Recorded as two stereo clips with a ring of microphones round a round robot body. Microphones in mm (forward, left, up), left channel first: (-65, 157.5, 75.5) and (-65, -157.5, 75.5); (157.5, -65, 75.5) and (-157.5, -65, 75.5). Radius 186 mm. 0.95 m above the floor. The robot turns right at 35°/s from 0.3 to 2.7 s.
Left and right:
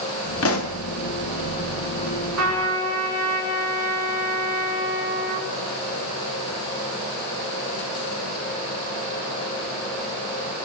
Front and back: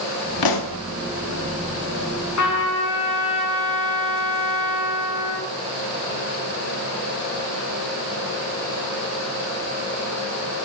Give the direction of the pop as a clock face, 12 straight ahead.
11 o'clock.